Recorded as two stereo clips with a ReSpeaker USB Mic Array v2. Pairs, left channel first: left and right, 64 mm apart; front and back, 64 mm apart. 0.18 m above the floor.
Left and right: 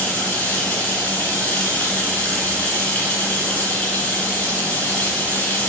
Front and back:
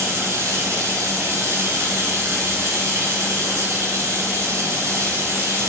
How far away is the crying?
No crying in this recording.